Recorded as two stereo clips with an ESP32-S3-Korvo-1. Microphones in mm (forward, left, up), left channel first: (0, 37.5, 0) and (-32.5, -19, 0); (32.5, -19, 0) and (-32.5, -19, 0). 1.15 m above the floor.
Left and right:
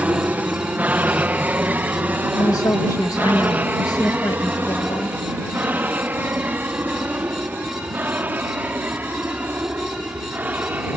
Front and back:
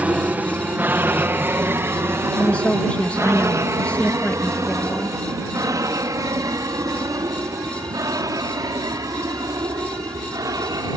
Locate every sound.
0.0 s an aircraft: 150° right; by 11.0 s straight behind
2.4 s a woman speaking: 65° left